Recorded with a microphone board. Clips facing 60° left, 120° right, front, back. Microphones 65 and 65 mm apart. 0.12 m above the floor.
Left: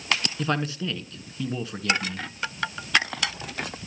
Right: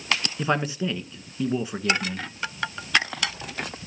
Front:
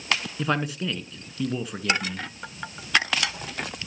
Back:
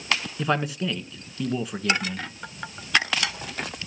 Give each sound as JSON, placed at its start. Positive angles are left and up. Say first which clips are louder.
{"t": 0.4, "sound": "a man speaking", "louder": "right 2 dB, back 2 dB", "azimuth_deg": -90, "distance_m": 1.1}